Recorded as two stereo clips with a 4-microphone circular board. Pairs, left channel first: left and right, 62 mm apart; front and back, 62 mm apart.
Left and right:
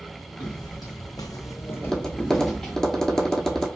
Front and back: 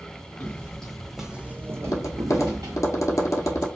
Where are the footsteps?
70° left, 0.8 m; by 2.8 s 175° left, 0.8 m.